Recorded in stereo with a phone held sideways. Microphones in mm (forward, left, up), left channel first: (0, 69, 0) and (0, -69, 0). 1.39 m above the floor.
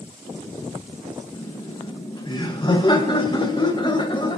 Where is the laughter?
30° left (ahead or behind), 1.2 m.